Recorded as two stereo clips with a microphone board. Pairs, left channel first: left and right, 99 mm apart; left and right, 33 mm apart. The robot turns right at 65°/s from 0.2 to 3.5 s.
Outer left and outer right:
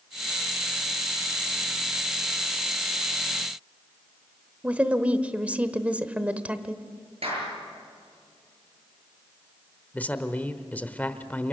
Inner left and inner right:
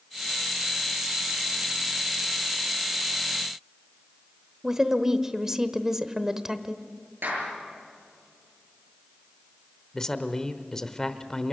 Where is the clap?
80° right, 7 m.